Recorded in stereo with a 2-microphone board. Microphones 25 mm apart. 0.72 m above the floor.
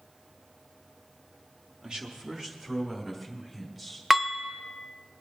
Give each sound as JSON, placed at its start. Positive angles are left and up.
{"t": 1.8, "sound": "a man speaking", "side_deg": -35, "distance_m": 1.2}
{"t": 4.1, "sound": "dishes clattering", "side_deg": -15, "distance_m": 0.6}